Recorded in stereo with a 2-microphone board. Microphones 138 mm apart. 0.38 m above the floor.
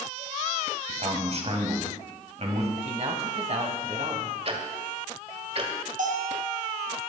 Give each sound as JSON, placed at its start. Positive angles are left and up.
{"t": 0.9, "sound": "a man speaking", "side_deg": -50, "distance_m": 2.5}
{"t": 2.8, "sound": "a man speaking", "side_deg": -50, "distance_m": 2.5}
{"t": 4.5, "sound": "ticking", "side_deg": -45, "distance_m": 1.6}
{"t": 6.0, "sound": "a bell", "side_deg": -75, "distance_m": 2.0}